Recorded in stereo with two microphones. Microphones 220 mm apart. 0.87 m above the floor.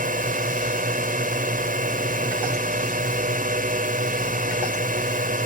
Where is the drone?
35° right (ahead or behind).